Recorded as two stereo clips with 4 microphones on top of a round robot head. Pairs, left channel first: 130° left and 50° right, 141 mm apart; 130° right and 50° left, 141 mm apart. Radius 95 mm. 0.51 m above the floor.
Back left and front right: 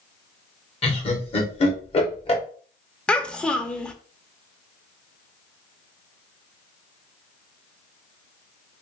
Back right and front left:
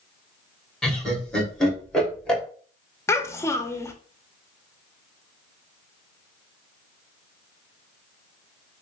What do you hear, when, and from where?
0.8 s laughter: 150° left, 1.8 m
3.1 s a child speaking: 155° right, 0.7 m